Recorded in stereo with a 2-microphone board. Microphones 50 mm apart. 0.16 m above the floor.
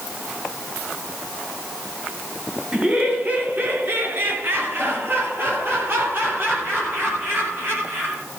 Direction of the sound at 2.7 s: 25° right (ahead or behind).